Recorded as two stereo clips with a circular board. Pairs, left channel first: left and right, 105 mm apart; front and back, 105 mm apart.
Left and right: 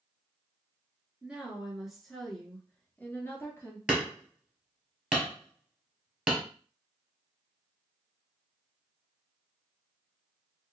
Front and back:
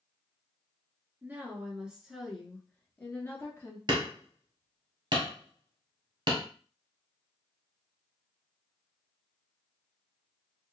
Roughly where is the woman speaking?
Behind right.